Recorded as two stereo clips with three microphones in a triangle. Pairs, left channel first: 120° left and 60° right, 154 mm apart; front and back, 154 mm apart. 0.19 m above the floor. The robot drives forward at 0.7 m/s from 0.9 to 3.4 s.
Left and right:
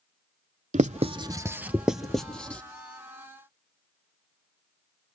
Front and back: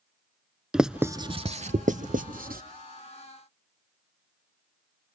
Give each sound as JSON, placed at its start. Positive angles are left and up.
{"t": 0.7, "sound": "writing", "azimuth_deg": -95, "distance_m": 0.5}